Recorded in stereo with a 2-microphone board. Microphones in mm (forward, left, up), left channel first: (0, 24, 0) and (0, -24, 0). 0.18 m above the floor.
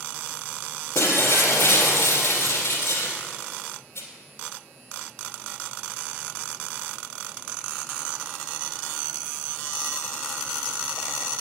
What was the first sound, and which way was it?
Breaking glass, 65° left (ahead or behind).